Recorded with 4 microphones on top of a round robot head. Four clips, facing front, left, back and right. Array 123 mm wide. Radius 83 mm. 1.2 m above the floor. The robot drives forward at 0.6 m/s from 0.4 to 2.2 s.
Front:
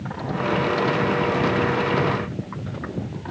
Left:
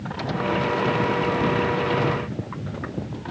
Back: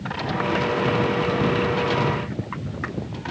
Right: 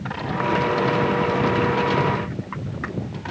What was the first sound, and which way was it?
Only background noise.